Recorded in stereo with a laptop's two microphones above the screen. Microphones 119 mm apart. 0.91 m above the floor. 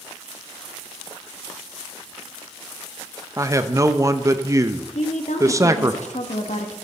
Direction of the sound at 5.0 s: 70° left (ahead or behind).